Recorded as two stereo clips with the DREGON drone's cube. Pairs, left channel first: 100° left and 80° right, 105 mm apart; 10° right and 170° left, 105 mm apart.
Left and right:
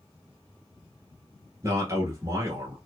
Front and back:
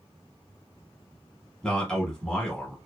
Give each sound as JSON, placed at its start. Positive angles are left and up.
{"t": 1.6, "sound": "a man speaking", "azimuth_deg": -90, "distance_m": 1.2}